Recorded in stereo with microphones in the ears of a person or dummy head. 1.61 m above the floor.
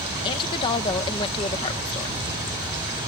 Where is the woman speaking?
25° left (ahead or behind).